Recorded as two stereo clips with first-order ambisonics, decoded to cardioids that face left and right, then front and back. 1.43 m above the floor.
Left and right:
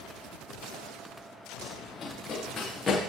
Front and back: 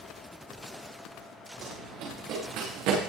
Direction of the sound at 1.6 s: 160° left.